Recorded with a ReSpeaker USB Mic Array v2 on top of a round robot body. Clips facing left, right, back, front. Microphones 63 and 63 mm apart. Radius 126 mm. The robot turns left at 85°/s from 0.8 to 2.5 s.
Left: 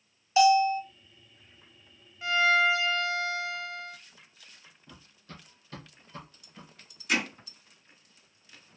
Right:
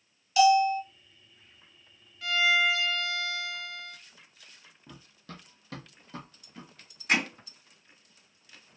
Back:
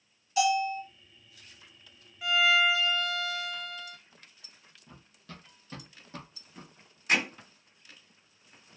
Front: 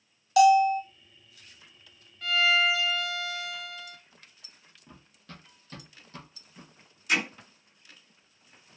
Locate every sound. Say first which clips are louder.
0.4 s a bell: even, front 8 dB; 25° left, 0.8 m
2.2 s a violin: left 2 dB, even; 110° left, 0.9 m; by 4.0 s 90° left, 0.9 m
4.9 s running footsteps: right 3 dB, even; 75° right, 0.9 m; by 6.7 s 120° right, 1.4 m
7.1 s hammering: right 2 dB, even; 130° right, 1.9 m